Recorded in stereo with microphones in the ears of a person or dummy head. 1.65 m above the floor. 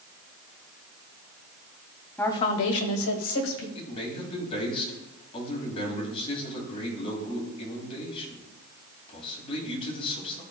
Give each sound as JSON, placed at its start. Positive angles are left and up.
{"t": 2.2, "sound": "a woman speaking", "side_deg": 5, "distance_m": 0.6}
{"t": 3.8, "sound": "a man speaking", "side_deg": 30, "distance_m": 2.5}